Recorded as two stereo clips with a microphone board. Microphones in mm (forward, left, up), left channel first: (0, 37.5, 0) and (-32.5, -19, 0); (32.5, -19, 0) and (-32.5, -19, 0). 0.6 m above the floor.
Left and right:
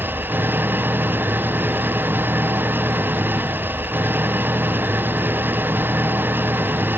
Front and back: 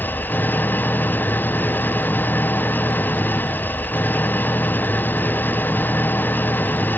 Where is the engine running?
60° right.